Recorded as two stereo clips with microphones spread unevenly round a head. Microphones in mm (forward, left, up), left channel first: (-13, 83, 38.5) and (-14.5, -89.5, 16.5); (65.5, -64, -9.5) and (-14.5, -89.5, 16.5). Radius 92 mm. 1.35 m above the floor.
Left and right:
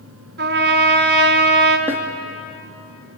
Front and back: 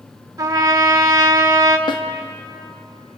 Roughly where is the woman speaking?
I don't hear a woman speaking.